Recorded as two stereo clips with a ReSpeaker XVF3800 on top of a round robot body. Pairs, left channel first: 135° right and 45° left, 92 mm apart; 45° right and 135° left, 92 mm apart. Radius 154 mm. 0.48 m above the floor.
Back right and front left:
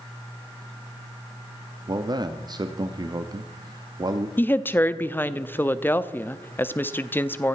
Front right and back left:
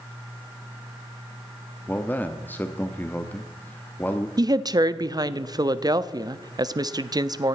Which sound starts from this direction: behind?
A woman speaking, at 4.4 s.